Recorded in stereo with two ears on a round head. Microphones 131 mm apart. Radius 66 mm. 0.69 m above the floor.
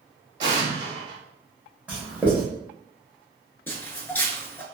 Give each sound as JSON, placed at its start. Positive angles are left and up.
{"t": 0.4, "sound": "an explosion", "side_deg": -30, "distance_m": 0.7}
{"t": 1.9, "sound": "writing", "side_deg": -10, "distance_m": 1.2}
{"t": 3.7, "sound": "footsteps", "side_deg": 15, "distance_m": 0.6}